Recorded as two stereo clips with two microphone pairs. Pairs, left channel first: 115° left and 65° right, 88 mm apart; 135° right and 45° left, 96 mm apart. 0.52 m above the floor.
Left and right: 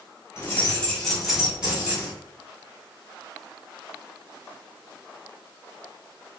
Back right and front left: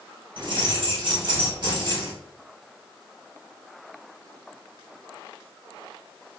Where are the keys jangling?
60° left, 1.0 m; by 2.1 s 5° left, 1.7 m.